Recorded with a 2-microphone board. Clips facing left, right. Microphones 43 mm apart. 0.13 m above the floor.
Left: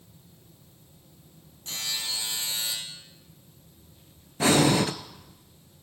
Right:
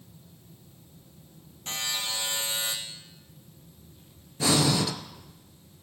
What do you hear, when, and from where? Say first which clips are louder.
1.7 s a buzzer: right 1 dB; 65° right (ahead or behind), 2 m
4.4 s breathing: left 3 dB; 40° left (ahead or behind), 0.6 m